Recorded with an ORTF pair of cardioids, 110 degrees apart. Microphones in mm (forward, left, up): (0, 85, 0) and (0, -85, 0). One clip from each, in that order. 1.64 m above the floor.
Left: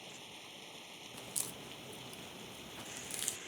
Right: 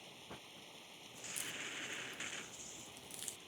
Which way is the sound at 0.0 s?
30° left.